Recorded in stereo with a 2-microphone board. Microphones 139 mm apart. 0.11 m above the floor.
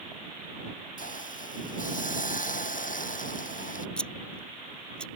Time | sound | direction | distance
1.0 | a hiss | 65° left (ahead or behind) | ?
4.0 | scissors | 5° left (ahead or behind) | ?